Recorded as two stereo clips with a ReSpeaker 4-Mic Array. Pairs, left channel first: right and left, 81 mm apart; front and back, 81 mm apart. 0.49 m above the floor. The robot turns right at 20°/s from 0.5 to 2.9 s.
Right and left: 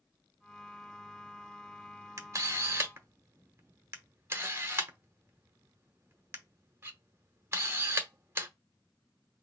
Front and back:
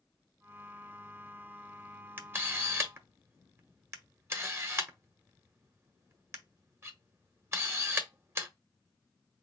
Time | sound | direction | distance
2.2 | a camera shutter | 125° left | 1.0 m